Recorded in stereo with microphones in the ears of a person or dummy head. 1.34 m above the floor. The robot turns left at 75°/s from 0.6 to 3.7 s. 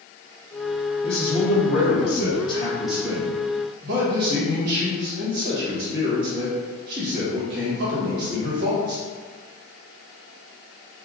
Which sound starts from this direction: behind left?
A man speaking, at 1.0 s.